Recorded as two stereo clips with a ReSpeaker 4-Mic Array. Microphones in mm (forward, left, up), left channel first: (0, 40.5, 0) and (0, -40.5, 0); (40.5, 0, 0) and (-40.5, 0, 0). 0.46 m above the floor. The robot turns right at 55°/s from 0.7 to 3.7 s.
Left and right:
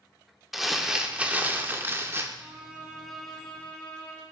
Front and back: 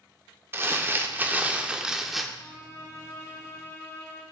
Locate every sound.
0.5 s crumpling: 175° right, 0.5 m; by 2.3 s 90° right, 0.5 m
2.4 s a violin: 35° right, 1.4 m; by 4.2 s 35° left, 1.4 m